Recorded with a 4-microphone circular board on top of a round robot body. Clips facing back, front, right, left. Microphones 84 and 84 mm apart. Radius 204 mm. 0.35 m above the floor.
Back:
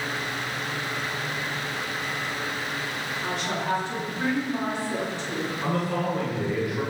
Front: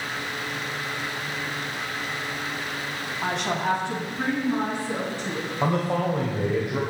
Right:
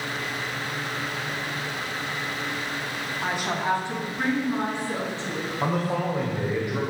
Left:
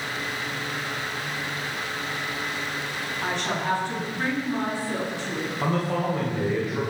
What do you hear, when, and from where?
3.2 s a woman speaking: 10° right, 4.5 m; by 5.5 s 30° right, 7 m
5.6 s a man speaking: 15° right, 3 m